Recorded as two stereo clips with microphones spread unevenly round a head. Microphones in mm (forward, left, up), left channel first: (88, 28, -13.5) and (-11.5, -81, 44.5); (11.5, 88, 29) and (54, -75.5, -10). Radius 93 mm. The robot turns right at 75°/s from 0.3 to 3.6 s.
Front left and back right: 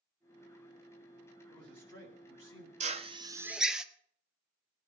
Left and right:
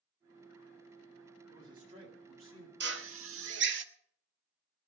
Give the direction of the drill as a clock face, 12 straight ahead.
4 o'clock.